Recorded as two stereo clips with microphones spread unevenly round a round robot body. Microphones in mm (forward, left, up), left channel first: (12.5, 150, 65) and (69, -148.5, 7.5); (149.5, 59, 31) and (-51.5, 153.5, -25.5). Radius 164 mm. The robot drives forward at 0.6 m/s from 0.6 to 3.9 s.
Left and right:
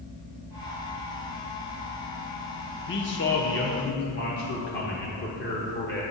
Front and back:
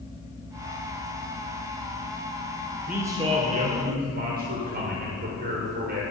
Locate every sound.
2.9 s a man speaking: 115° left, 0.7 m; by 6.0 s 160° left, 1.1 m